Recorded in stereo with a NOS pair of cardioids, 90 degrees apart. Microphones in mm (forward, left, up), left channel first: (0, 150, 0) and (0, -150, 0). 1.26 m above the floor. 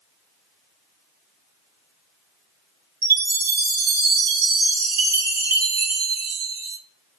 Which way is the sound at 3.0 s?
35° right.